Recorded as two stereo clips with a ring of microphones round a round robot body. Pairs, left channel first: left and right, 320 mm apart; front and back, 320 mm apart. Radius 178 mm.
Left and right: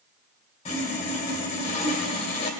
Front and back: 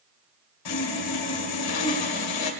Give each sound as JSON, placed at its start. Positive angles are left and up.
{"t": 0.7, "sound": "sawing", "azimuth_deg": 15, "distance_m": 1.8}